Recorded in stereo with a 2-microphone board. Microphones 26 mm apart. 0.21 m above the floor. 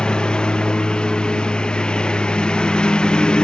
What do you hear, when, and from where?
0.0 s a lawn mower: 35° left (ahead or behind)